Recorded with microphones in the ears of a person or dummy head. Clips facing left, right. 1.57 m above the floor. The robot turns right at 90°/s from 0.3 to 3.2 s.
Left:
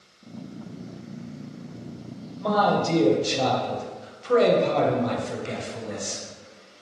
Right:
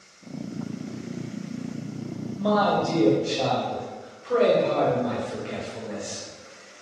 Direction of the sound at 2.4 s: 15° right.